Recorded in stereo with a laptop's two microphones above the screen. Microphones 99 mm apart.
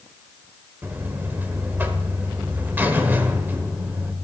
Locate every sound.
0.8 s a buzzer: 20° right (ahead or behind), 1.1 m